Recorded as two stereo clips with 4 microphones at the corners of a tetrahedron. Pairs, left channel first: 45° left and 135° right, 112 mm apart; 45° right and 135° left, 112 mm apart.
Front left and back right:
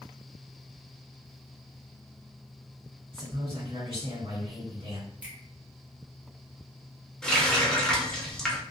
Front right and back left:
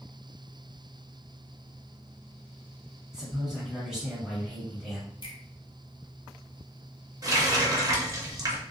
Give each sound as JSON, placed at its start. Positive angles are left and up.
{"t": 3.1, "sound": "a man speaking", "azimuth_deg": -140, "distance_m": 1.8}
{"t": 5.2, "sound": "a finger snap", "azimuth_deg": -65, "distance_m": 1.0}
{"t": 7.2, "sound": "a running tap", "azimuth_deg": 125, "distance_m": 0.6}